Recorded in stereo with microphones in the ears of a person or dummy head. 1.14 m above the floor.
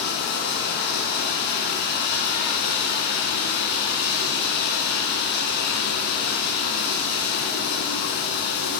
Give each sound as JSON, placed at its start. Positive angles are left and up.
{"t": 0.0, "sound": "running water", "side_deg": 55, "distance_m": 1.7}